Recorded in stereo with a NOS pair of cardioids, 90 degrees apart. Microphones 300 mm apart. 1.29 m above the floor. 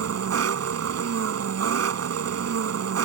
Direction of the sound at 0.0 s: 55° right.